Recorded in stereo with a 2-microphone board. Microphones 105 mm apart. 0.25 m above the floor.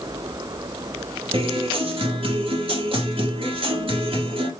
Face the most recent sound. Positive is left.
turn(degrees=-60)  # may be behind; listen again after turning